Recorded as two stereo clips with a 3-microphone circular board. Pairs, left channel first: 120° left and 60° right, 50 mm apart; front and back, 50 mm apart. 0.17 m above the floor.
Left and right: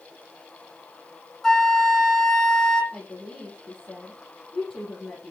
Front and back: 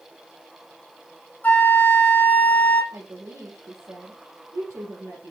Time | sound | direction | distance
1.4 | a flute | 45° left | 1.5 m
2.9 | a woman speaking | straight behind | 4 m